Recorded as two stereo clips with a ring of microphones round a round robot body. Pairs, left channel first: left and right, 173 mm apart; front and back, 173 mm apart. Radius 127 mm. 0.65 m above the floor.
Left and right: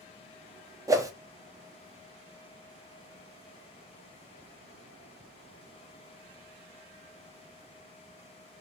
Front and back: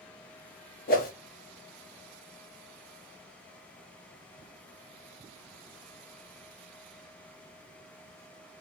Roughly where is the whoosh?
Ahead.